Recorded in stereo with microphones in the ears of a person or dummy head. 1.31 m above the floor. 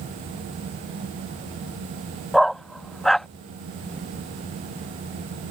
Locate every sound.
2.3 s a dog barking: centre (ahead or behind)